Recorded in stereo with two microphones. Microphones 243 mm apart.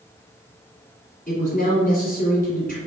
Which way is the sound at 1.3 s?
35° left (ahead or behind).